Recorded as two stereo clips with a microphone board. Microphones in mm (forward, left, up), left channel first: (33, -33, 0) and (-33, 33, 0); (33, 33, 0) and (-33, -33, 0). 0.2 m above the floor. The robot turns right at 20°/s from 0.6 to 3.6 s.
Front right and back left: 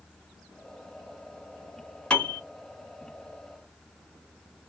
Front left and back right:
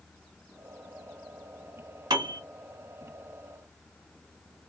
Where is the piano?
120° right, 1.2 m; by 2.4 s 115° right, 1.2 m.